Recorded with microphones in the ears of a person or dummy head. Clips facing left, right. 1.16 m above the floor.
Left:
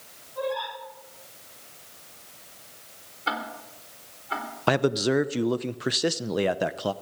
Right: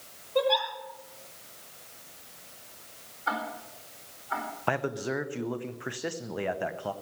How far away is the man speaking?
About 0.7 m.